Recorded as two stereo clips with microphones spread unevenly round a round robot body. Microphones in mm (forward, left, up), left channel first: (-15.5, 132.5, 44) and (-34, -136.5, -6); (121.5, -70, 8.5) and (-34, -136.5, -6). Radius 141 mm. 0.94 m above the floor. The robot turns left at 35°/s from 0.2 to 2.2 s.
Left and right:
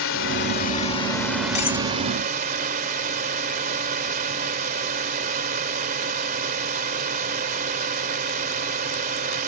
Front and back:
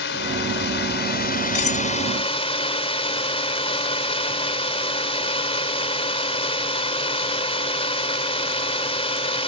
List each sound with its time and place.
0.0 s a drone: 40° left; by 9.5 s 30° right
1.6 s cutlery clinking: 20° left; by 1.9 s 10° left